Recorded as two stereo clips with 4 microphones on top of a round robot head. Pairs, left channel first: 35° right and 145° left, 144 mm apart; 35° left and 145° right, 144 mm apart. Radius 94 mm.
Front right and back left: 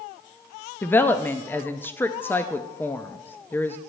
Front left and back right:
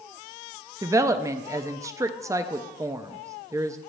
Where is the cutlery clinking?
I don't hear cutlery clinking.